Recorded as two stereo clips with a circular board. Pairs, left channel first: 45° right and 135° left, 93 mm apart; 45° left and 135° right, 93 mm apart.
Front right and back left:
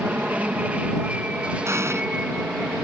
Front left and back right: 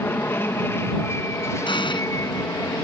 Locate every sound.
0.0 s an aircraft: 80° left; by 2.8 s 65° left
1.6 s an explosion: 75° left